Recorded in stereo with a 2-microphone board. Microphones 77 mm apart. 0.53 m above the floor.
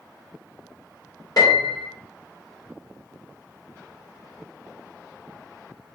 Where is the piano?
55° left (ahead or behind), 1.4 m.